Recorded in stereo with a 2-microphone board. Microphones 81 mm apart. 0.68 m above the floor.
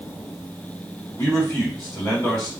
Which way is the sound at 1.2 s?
45° left (ahead or behind).